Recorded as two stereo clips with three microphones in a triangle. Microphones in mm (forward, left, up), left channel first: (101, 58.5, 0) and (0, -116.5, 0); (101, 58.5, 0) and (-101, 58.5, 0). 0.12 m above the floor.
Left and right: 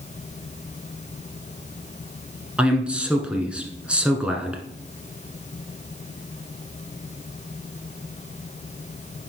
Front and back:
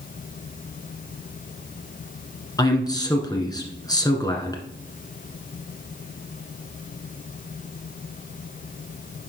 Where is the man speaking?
40° right, 1.3 m.